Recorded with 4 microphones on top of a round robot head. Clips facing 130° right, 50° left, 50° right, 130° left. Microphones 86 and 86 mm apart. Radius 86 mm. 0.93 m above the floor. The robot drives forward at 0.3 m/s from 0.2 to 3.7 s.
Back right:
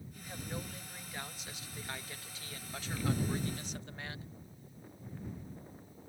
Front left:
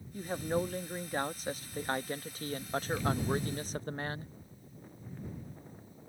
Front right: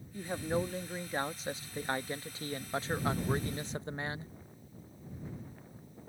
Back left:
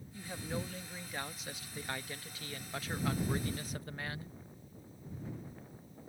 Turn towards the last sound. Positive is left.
turn(degrees=10)